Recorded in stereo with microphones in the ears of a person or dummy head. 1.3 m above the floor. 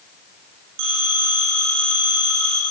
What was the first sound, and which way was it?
A phone ringing, 70° right (ahead or behind).